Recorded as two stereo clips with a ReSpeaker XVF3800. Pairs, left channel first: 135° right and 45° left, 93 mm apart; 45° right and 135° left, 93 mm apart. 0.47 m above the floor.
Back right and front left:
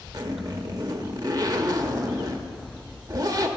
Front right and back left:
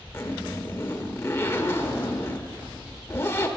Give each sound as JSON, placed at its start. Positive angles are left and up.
{"t": 0.1, "sound": "a zipper", "azimuth_deg": 15, "distance_m": 0.8}